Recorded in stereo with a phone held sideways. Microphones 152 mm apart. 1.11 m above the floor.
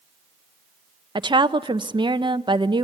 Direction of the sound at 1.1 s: 30° right (ahead or behind).